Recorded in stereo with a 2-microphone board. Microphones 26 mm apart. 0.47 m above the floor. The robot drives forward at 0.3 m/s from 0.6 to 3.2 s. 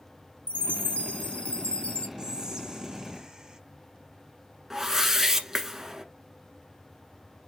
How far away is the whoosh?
About 0.9 m.